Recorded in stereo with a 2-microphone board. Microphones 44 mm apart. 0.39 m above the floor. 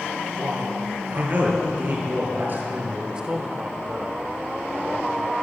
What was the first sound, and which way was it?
A man speaking, 45° right (ahead or behind).